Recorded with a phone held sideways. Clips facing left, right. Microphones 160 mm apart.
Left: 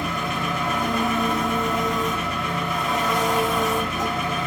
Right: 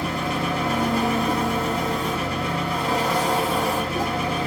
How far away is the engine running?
About 0.9 m.